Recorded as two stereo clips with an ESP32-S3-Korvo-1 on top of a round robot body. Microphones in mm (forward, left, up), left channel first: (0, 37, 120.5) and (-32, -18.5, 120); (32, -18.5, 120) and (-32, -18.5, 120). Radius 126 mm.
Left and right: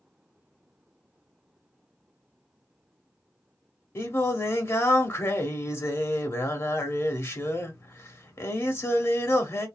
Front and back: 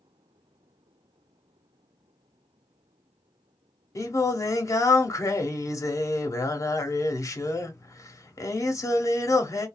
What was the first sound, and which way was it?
Singing, 20° left.